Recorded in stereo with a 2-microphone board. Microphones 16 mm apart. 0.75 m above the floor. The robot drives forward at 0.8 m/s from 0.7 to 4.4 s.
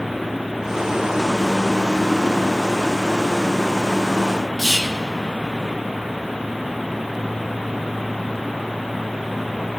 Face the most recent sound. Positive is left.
turn(degrees=-30)  # may be behind; listen again after turning